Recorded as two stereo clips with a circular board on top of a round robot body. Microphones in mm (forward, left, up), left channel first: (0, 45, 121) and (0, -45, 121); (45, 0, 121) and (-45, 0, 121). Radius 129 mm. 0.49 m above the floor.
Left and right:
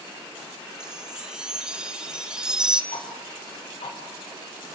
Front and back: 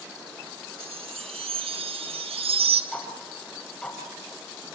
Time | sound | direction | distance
0.8 | a chime | 170° right | 1.1 m
2.9 | ticking | 80° left | 3.5 m